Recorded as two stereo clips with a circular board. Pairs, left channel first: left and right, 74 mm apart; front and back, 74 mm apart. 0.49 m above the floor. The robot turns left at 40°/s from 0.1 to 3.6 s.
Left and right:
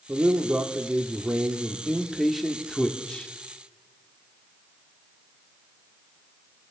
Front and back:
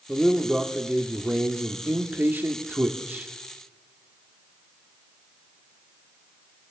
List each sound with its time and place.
0.1 s a man speaking: 85° right, 1.3 m; by 3.3 s 145° left, 1.3 m